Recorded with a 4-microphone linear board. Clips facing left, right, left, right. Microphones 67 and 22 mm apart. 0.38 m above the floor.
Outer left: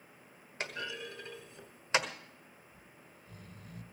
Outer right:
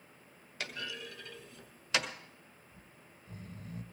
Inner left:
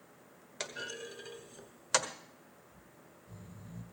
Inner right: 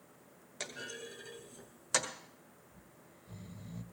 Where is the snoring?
40° right (ahead or behind), 1.4 m.